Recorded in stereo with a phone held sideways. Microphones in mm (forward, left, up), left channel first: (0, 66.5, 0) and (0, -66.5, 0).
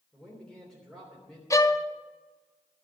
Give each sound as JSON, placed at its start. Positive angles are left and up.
{"t": 0.1, "sound": "a man speaking", "side_deg": 5, "distance_m": 3.0}
{"t": 1.5, "sound": "a violin", "side_deg": 25, "distance_m": 0.6}